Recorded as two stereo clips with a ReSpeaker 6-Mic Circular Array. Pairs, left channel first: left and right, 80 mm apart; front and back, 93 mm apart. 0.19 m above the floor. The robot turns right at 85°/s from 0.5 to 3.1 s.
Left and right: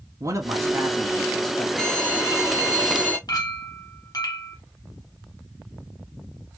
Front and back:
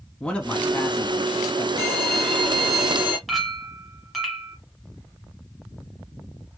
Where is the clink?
90° left, 1.6 m.